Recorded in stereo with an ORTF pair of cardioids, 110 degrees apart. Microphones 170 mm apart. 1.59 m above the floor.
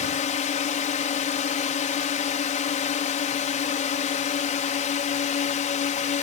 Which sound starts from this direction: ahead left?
A drone, at 0.0 s.